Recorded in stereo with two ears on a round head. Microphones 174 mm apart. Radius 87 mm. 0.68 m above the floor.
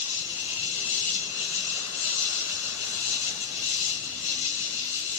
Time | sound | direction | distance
0.0 | an insect | 75° left (ahead or behind) | 1.0 m